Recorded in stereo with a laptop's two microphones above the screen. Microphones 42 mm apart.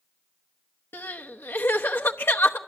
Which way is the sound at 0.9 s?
65° left (ahead or behind).